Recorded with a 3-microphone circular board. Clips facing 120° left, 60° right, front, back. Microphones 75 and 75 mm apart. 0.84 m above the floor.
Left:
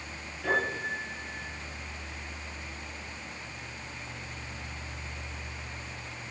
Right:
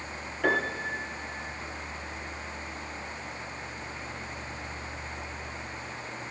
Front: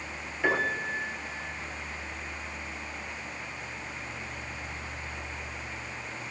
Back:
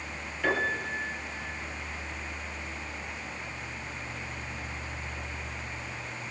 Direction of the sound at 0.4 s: 75° right.